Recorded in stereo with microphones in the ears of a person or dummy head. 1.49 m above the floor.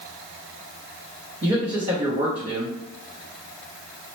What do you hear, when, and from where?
1.4 s a man speaking: 35° right (ahead or behind), 0.7 m